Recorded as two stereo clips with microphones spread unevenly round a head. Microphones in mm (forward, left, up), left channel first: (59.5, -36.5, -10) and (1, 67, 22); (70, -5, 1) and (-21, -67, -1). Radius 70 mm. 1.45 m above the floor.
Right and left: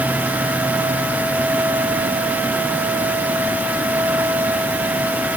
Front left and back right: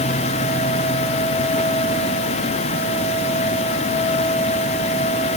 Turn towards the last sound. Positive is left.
No sound to turn to.